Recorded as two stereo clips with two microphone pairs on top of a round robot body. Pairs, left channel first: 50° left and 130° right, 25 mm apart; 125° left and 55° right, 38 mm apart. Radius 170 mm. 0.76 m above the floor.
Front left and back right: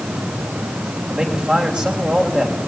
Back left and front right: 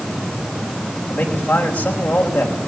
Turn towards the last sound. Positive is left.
turn(degrees=180)